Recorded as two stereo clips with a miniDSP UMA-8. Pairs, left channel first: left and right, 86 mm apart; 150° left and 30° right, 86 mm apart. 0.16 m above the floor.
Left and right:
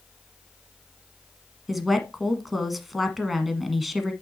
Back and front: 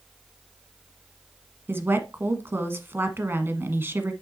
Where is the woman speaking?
5° right, 1.3 m.